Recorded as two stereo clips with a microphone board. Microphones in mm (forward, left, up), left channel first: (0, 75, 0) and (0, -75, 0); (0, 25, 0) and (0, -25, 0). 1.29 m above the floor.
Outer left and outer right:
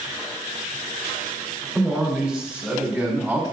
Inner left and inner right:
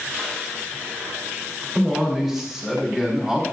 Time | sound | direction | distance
1.8 | a man speaking | 5° right (ahead or behind) | 4.5 m